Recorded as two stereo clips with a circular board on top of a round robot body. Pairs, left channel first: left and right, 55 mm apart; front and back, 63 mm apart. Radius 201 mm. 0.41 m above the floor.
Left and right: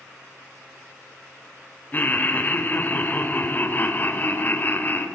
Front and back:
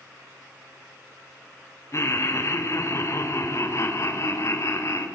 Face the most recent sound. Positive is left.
turn(degrees=35)